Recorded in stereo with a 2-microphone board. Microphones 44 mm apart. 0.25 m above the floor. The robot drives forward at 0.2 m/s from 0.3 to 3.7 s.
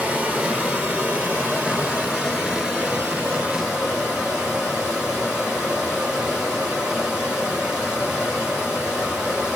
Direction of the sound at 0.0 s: 35° right (ahead or behind).